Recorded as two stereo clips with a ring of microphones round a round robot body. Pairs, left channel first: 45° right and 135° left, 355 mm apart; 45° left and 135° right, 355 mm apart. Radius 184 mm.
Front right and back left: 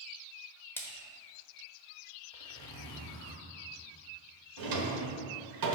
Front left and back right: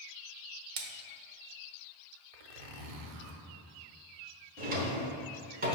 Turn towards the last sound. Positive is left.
turn(degrees=160)